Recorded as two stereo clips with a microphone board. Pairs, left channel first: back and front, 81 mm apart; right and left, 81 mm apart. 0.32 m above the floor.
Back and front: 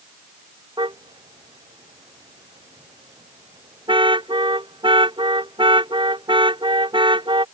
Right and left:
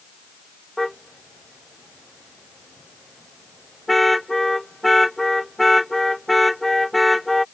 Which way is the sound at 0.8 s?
Straight ahead.